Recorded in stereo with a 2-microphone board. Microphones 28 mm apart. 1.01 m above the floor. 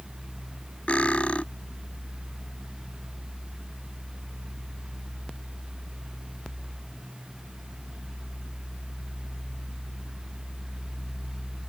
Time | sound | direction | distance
0.9 | cutlery clinking | 45° left (ahead or behind) | ?